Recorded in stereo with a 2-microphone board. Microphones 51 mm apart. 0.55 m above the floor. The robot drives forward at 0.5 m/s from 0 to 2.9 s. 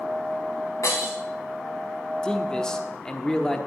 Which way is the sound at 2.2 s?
15° left (ahead or behind).